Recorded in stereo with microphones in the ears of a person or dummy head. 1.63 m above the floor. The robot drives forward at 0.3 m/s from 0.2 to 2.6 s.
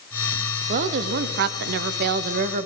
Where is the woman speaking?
50° right (ahead or behind), 0.6 m; by 2.7 s 45° right (ahead or behind), 0.6 m.